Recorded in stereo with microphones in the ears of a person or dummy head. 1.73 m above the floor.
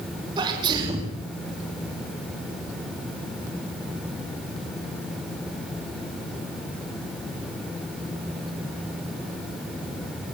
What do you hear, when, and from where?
0.4 s a sneeze: 30° right (ahead or behind), 4.5 m